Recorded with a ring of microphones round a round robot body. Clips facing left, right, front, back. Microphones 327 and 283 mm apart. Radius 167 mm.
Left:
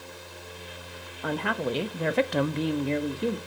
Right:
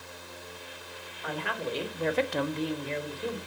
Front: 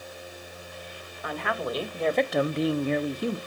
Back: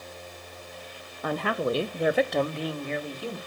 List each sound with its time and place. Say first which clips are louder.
1.2 s a woman speaking: left 6 dB, back 4 dB; 135° left, 1.0 m; by 3.4 s 35° left, 0.9 m